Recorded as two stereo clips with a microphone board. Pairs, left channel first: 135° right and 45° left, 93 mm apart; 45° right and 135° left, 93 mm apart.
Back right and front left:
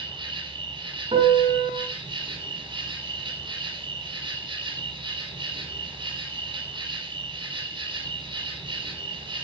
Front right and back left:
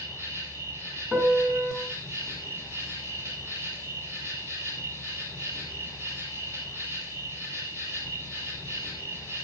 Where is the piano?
55° left, 6 m.